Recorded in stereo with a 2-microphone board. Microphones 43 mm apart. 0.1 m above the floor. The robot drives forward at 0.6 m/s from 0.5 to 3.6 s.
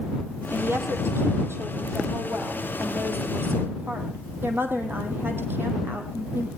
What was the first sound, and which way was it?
A woman speaking, 70° right (ahead or behind).